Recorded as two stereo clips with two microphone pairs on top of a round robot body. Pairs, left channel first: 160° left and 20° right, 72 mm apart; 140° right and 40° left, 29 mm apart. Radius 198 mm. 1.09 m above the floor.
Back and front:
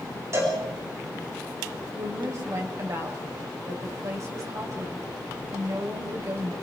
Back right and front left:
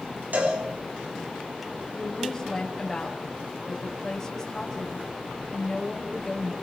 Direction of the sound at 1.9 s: 65° right.